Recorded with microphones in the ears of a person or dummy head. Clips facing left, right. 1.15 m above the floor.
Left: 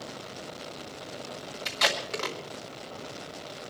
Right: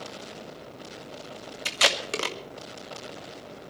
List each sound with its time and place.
1.6 s tape being pulled: 40° right (ahead or behind), 1.2 m